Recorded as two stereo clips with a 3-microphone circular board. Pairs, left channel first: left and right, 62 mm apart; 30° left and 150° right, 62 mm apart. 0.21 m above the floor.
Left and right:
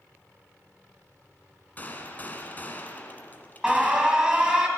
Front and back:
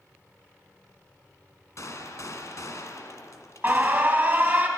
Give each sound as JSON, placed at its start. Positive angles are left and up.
{"t": 1.8, "sound": "a gunshot", "azimuth_deg": 35, "distance_m": 1.4}
{"t": 3.6, "sound": "an alarm", "azimuth_deg": -155, "distance_m": 1.8}